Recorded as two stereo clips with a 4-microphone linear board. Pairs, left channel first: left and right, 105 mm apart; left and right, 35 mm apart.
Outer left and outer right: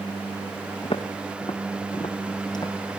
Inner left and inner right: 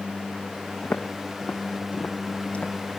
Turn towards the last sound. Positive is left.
turn(degrees=40)  # may be behind; listen again after turning